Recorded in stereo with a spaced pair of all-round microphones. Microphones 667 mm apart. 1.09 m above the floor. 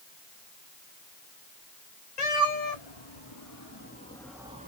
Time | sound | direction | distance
2.2 | a cat meowing | 50° left (ahead or behind) | 1.9 m